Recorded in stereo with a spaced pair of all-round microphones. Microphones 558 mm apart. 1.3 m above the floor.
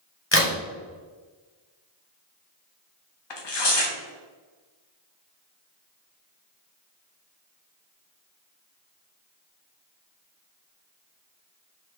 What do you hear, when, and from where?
0.3 s a crack: 20° left (ahead or behind), 1.3 m
3.3 s tearing paper: 50° left (ahead or behind), 0.7 m